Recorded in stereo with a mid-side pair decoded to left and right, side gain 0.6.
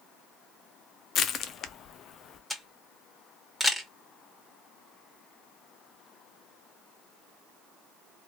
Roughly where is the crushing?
Ahead left.